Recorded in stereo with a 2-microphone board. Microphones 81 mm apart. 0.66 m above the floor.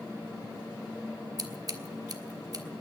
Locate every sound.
1.4 s scissors: 50° right (ahead or behind), 1.4 m